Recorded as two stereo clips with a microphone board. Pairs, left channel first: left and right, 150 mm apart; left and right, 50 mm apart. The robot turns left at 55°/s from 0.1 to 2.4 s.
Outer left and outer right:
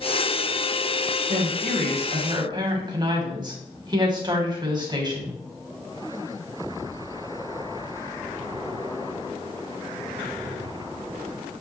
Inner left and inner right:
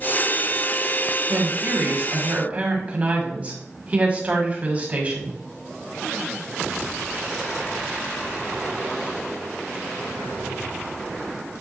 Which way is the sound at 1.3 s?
80° right.